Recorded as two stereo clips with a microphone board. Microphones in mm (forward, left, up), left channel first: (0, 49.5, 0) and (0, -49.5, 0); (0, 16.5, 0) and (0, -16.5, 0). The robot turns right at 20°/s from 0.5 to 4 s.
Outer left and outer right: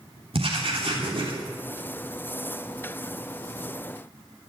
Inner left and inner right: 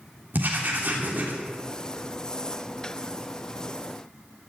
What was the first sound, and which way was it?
Writing, 70° right (ahead or behind).